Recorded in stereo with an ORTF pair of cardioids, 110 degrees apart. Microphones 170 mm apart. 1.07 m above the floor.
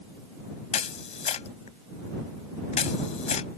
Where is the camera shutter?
45° left.